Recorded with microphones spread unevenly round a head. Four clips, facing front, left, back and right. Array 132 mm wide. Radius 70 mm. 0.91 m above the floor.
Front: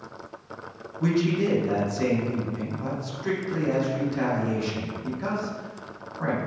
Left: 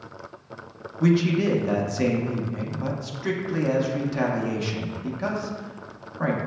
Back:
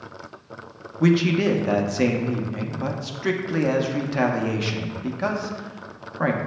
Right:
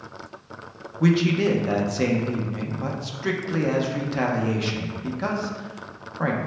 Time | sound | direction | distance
1.0 | a man speaking | 165° right | 0.6 m